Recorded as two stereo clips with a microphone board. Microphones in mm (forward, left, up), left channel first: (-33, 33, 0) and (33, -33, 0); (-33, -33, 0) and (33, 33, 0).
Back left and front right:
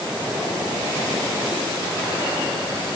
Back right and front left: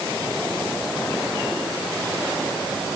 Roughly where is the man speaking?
I don't hear a man speaking.